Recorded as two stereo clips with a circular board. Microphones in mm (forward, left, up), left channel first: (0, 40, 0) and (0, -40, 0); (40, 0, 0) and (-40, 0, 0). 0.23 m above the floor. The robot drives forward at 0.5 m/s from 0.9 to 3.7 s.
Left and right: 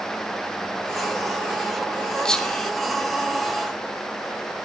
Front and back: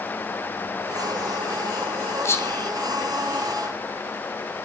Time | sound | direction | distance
2.2 | whispering | 15° left | 1.7 m